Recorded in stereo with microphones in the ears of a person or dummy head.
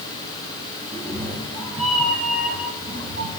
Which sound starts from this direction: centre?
A cat meowing, at 0.9 s.